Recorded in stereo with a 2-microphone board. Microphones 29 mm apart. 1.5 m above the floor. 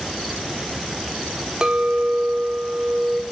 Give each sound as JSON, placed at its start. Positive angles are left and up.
{"t": 1.6, "sound": "a clink", "side_deg": -25, "distance_m": 0.6}